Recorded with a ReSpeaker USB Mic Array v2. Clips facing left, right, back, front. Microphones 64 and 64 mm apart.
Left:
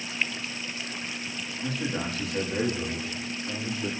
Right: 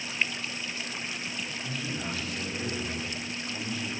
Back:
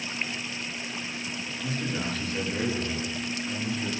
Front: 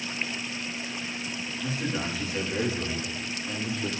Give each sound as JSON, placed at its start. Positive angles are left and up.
{"t": 1.6, "sound": "a man speaking", "azimuth_deg": 80, "distance_m": 9.5}